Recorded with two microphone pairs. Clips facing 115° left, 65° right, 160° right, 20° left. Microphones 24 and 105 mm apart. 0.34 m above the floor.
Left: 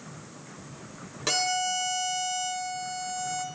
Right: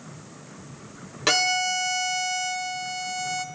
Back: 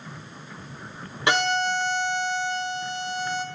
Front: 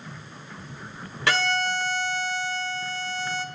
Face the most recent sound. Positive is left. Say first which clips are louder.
# right 5 dB, back 2 dB
turn(degrees=-100)